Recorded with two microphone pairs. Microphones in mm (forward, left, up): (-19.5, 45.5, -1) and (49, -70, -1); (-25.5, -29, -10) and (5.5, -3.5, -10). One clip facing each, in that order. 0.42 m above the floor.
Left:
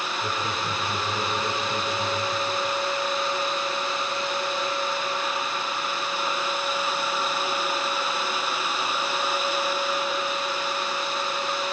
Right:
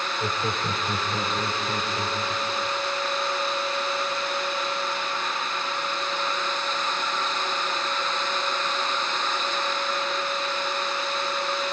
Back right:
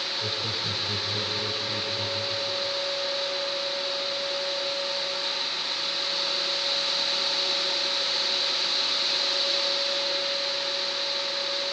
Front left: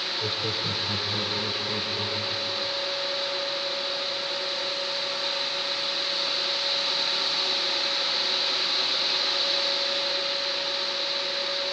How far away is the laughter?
About 1.8 m.